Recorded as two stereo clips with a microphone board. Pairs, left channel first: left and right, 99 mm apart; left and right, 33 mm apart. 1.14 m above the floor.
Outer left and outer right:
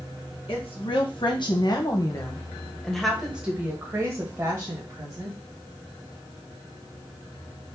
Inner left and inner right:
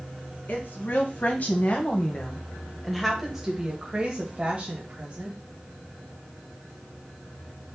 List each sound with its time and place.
0.5 s a woman speaking: 65° left (ahead or behind), 1.4 m; by 5.4 s 40° right (ahead or behind), 1.9 m